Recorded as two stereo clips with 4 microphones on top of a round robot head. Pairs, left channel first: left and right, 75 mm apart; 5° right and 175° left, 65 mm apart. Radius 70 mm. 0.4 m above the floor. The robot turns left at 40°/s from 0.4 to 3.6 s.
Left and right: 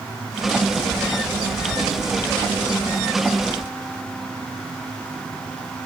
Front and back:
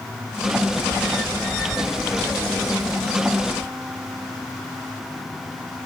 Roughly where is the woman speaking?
I don't hear a woman speaking.